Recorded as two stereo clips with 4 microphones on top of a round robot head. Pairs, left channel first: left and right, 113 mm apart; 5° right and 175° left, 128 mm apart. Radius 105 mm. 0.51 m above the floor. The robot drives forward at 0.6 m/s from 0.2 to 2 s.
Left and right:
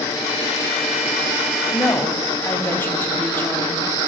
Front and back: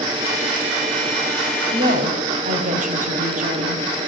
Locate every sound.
1.7 s a woman speaking: 160° left, 4 m